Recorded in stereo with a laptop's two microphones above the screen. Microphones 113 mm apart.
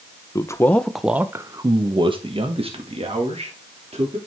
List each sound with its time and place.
0.3 s a man speaking: 30° left (ahead or behind), 0.8 m; by 4.2 s 70° right (ahead or behind), 2.5 m